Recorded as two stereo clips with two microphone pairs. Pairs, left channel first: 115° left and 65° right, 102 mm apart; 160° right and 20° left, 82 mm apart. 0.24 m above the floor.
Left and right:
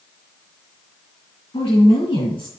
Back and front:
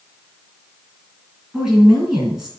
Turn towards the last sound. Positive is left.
turn(degrees=105)